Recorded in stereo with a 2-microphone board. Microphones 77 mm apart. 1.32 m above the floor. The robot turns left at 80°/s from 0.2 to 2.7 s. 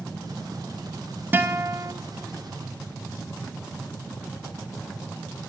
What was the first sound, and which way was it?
A guitar, 35° right.